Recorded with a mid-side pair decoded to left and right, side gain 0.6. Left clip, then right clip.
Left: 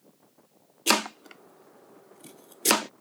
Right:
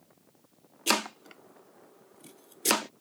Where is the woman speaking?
I don't hear a woman speaking.